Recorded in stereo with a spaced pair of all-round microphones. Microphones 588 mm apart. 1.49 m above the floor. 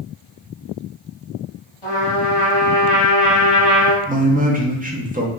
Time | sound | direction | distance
1.8 | a trumpet | 60° left (ahead or behind) | 1.3 m
4.1 | a man speaking | 15° right (ahead or behind) | 0.7 m